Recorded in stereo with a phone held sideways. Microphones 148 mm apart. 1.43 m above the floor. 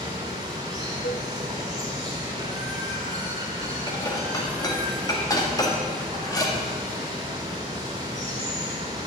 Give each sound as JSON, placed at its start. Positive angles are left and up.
{"t": 0.0, "sound": "running water", "side_deg": -25, "distance_m": 2.5}
{"t": 1.0, "sound": "a cowbell", "side_deg": 80, "distance_m": 0.7}
{"t": 3.9, "sound": "dishes clattering", "side_deg": 25, "distance_m": 1.7}